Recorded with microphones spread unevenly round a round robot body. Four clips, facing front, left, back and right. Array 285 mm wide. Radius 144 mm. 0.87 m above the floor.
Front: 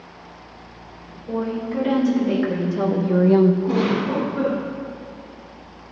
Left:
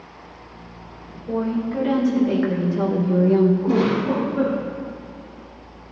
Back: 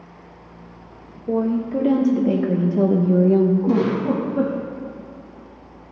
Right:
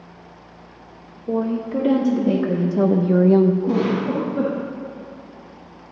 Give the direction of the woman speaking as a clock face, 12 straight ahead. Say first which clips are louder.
Right 1 dB, back 4 dB; 5 o'clock.